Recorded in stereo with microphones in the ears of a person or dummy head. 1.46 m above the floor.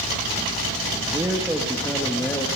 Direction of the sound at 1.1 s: 15° right (ahead or behind).